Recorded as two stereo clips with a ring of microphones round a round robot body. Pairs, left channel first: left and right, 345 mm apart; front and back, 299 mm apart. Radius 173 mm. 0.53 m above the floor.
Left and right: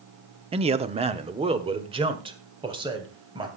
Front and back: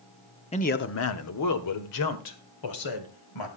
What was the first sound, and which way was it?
A man speaking, 40° right.